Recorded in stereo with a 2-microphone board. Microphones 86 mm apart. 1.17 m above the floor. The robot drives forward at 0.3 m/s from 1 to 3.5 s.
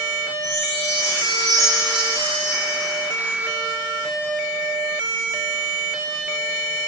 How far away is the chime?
About 1.6 m.